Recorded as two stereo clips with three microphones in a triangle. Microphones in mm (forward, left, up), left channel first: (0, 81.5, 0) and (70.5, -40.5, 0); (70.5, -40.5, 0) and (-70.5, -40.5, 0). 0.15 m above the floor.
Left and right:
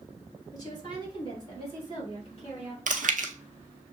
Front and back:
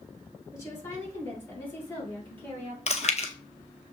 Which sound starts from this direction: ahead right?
Chewing, at 2.9 s.